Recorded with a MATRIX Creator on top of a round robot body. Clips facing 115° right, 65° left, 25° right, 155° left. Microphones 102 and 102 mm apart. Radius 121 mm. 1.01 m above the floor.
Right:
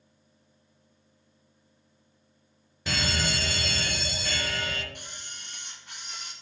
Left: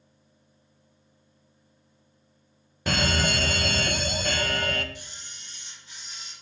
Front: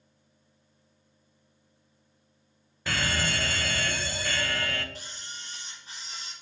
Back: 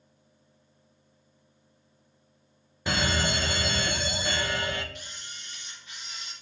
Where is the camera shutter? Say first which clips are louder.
Right 1 dB, front 1 dB; 80° right, 4 m.